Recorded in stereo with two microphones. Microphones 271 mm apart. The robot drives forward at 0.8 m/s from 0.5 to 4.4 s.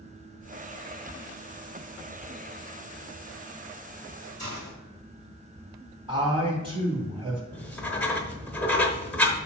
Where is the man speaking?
20° right (ahead or behind), 3 m.